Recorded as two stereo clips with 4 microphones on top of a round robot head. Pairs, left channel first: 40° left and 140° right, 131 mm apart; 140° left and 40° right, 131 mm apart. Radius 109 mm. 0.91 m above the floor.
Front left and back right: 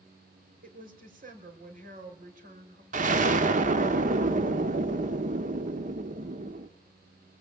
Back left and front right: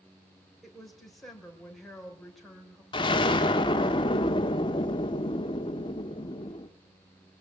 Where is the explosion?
165° right, 1.2 m.